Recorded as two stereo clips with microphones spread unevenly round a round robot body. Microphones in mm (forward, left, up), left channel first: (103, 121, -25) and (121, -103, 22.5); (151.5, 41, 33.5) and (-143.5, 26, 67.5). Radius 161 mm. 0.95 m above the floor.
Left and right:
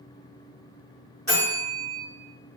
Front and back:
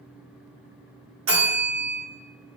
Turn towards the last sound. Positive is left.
turn(degrees=170)